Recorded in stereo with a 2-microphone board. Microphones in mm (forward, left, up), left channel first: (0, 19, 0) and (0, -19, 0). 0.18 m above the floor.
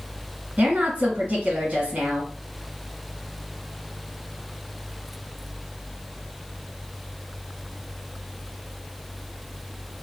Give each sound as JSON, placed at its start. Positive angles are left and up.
{"t": 0.6, "sound": "a woman speaking", "side_deg": -45, "distance_m": 1.4}